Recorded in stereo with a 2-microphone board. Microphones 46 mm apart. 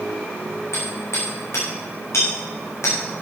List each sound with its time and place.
0.7 s hammering: 75° left (ahead or behind), 5.5 m